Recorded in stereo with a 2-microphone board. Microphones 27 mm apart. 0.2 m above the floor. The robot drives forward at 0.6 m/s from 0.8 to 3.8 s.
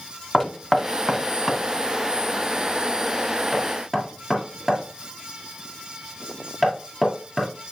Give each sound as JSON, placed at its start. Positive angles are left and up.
{"t": 0.3, "sound": "knocking", "side_deg": 10, "distance_m": 0.9}